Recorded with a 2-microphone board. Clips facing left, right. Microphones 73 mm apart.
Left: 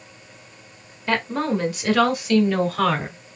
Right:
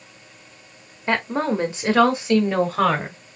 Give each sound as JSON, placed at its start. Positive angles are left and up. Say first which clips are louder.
{"t": 1.1, "sound": "a woman speaking", "louder": "right 1 dB", "side_deg": -20, "distance_m": 1.0}